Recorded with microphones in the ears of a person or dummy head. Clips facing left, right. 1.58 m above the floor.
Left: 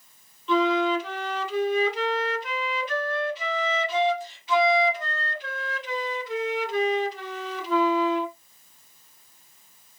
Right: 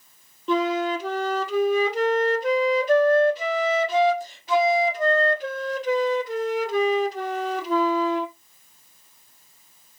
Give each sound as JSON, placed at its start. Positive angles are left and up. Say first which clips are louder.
{"t": 0.5, "sound": "a flute", "louder": "left 1 dB", "side_deg": -35, "distance_m": 0.6}